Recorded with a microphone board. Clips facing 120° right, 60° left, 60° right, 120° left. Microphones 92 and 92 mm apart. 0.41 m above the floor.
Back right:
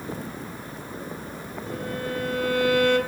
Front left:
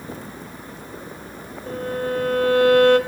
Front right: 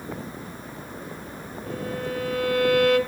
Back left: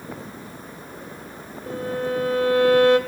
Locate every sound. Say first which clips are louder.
1.7 s a violin: front left 6 dB, back left 5 dB; 70° left, 2 m